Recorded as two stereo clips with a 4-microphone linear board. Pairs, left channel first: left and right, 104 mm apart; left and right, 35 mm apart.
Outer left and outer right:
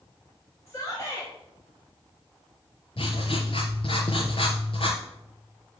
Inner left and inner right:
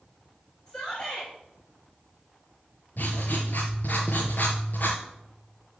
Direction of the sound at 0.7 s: 30° left (ahead or behind).